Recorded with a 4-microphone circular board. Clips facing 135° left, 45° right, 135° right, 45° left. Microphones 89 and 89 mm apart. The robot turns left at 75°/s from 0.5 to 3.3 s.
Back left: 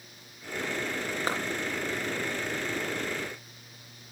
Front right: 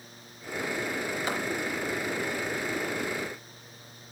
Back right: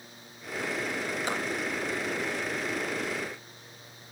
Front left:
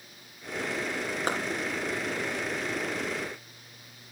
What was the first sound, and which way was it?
A clap, 85° left.